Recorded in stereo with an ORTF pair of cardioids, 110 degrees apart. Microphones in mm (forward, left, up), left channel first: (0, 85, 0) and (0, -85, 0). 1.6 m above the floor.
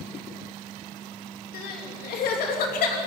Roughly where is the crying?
Ahead left.